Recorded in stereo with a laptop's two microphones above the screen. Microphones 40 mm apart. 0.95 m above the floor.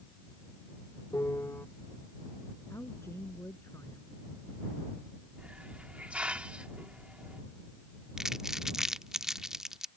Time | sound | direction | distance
1.1 | a piano | 75° left (ahead or behind) | ?
2.7 | a woman speaking | 75° left (ahead or behind) | ?
5.4 | a hiss | 30° right (ahead or behind) | ?
8.2 | crumpling | 15° right (ahead or behind) | ?